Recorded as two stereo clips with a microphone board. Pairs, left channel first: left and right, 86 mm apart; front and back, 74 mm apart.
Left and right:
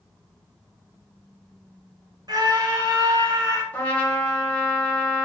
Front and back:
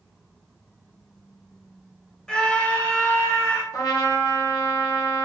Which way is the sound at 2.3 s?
75° right.